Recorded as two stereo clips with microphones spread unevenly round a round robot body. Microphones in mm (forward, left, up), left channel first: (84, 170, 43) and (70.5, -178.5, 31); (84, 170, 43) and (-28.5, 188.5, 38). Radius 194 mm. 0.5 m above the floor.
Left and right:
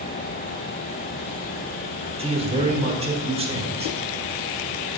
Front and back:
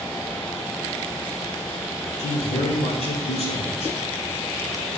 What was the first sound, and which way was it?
A man speaking, 25° right.